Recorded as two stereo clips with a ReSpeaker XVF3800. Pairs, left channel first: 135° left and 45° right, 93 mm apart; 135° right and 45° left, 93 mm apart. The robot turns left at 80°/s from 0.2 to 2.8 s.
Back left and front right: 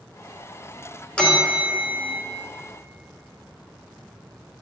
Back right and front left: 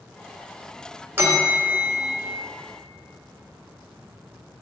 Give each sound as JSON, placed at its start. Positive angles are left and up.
{"t": 1.2, "sound": "a bell", "azimuth_deg": 70, "distance_m": 1.1}